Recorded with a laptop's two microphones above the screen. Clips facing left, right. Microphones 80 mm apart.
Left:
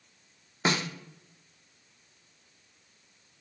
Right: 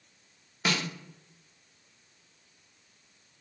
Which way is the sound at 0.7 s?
30° left (ahead or behind).